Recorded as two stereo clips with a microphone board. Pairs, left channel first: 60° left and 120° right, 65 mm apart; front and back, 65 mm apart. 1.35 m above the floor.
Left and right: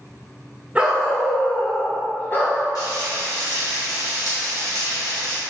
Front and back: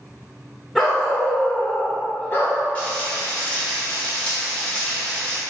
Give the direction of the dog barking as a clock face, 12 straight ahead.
3 o'clock.